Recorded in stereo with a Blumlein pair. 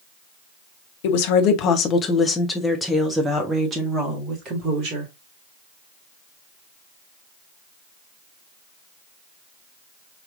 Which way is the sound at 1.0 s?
50° left.